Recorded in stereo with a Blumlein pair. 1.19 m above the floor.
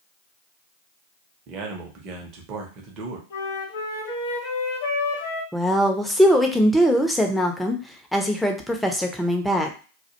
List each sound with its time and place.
1.5 s a man speaking: 35° right, 0.7 m
3.3 s a flute: 55° left, 0.9 m
5.5 s a woman speaking: straight ahead, 0.5 m